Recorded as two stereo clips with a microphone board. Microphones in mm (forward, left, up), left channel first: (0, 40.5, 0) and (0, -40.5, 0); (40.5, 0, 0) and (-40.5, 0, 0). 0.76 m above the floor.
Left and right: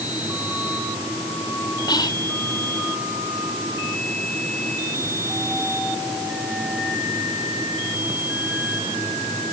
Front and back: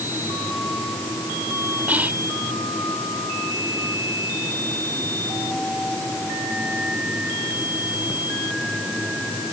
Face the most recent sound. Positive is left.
turn(degrees=110)